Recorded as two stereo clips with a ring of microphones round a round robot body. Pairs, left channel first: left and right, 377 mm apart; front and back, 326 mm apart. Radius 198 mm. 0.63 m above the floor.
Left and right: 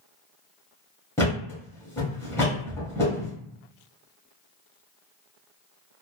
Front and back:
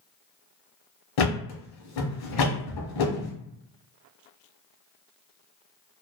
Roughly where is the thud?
Ahead.